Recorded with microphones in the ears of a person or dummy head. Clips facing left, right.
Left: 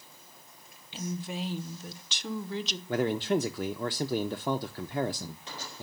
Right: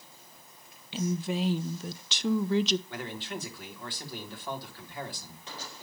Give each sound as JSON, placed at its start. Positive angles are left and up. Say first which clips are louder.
{"t": 0.9, "sound": "a woman speaking", "louder": "right 5 dB", "side_deg": -60, "distance_m": 0.8}
{"t": 2.9, "sound": "a man speaking", "louder": "left 11 dB", "side_deg": 40, "distance_m": 0.6}